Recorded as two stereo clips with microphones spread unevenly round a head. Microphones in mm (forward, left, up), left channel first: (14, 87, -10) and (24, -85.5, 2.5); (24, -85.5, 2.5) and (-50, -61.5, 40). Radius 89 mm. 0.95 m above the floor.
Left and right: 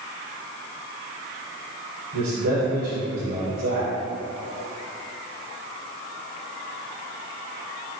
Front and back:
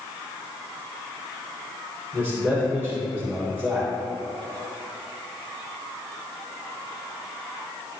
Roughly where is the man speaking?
Right.